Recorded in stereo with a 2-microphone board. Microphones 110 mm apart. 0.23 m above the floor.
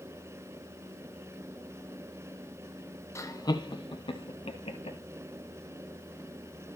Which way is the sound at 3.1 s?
25° left (ahead or behind).